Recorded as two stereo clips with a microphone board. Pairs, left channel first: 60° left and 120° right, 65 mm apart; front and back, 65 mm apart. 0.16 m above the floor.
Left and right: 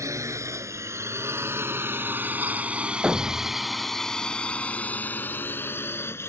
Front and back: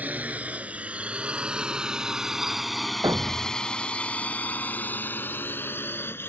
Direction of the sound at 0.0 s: 125° right.